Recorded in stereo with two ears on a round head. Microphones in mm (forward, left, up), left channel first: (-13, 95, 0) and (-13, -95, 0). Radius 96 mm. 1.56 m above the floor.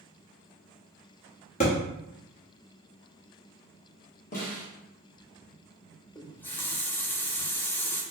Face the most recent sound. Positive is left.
turn(degrees=10)  # may be behind; listen again after turning